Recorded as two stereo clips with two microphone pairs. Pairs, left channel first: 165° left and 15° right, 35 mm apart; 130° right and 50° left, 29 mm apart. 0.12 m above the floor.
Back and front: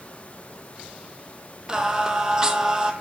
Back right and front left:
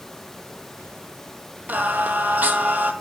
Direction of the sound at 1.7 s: 55° left.